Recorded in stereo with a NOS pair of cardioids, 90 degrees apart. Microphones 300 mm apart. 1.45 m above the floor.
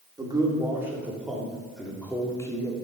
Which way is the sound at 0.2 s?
15° right.